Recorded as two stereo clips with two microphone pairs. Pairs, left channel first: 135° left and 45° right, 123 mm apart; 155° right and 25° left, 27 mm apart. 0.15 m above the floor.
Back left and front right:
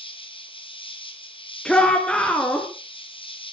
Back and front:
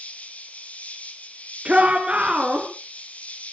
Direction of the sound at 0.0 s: Straight behind.